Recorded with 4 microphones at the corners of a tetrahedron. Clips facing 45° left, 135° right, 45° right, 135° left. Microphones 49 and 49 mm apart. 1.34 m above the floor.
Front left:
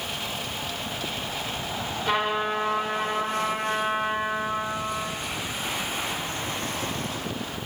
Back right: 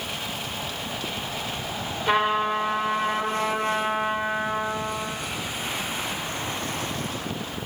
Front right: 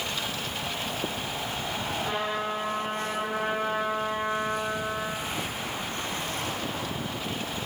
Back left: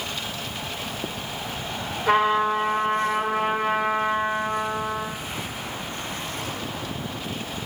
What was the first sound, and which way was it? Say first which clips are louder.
A trumpet: back right 3 dB, back left 13 dB; 135° left.